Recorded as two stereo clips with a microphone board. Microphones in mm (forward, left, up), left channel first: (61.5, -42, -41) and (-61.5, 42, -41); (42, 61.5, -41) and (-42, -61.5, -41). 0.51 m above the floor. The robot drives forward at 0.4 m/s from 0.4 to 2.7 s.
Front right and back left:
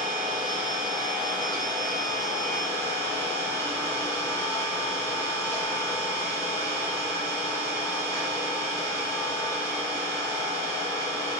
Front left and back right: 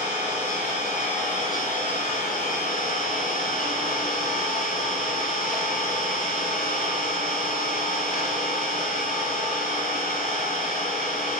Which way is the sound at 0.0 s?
25° left.